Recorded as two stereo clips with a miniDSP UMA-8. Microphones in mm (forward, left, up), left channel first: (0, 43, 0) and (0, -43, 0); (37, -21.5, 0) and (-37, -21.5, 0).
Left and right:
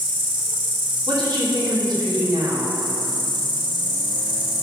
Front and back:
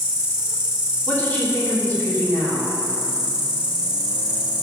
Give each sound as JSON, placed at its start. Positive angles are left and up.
{"t": 0.0, "sound": "an insect", "azimuth_deg": -105, "distance_m": 1.4}
{"t": 1.1, "sound": "a woman speaking", "azimuth_deg": -65, "distance_m": 3.0}